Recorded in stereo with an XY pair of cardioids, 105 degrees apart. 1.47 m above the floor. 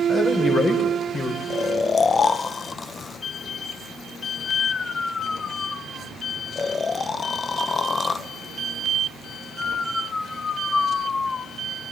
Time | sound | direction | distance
0.1 | a man speaking | 40° left | 7.5 m
1.5 | snoring | 35° left | 0.8 m